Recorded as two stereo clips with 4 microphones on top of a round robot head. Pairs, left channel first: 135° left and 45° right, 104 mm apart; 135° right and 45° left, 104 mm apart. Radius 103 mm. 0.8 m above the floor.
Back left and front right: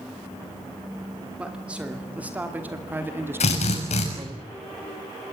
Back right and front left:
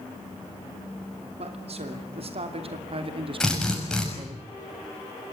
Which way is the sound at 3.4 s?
140° left.